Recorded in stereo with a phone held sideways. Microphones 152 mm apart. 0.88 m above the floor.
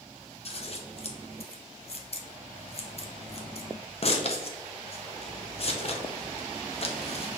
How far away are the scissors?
About 0.6 m.